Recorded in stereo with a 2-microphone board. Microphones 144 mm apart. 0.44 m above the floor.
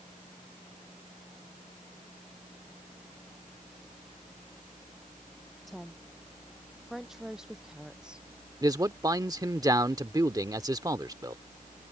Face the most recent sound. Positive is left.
turn(degrees=-25)  # may be behind; listen again after turning